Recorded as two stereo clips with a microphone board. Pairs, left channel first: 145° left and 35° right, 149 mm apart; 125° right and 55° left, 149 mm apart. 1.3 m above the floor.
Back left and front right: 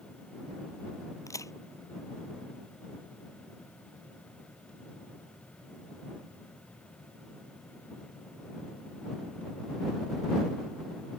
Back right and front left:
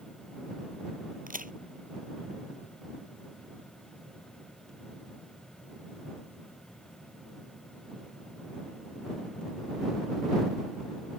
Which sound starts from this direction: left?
A crack, at 1.3 s.